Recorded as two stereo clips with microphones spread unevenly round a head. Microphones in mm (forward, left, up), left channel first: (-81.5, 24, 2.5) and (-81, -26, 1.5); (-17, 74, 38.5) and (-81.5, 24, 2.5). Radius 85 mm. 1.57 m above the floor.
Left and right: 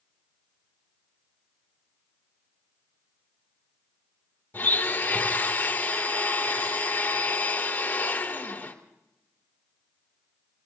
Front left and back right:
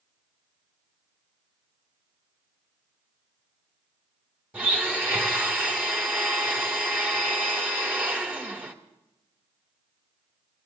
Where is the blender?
145° left, 2.5 m.